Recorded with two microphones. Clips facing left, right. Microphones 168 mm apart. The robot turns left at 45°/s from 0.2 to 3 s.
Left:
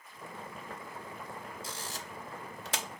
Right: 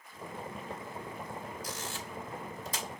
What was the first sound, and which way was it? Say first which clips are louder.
A camera shutter: right 2 dB; 25° left (ahead or behind).